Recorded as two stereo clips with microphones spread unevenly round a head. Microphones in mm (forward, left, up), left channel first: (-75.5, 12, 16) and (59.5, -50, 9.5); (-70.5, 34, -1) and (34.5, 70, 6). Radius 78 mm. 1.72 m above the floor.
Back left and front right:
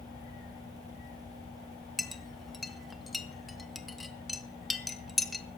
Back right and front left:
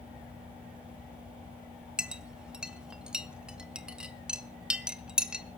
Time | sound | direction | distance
2.0 | a clink | 75° left | 0.8 m